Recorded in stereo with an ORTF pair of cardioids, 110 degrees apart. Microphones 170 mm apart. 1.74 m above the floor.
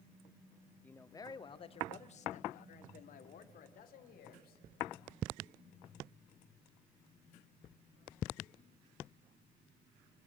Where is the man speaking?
10° left, 0.9 m; by 4.6 s 60° left, 2.5 m.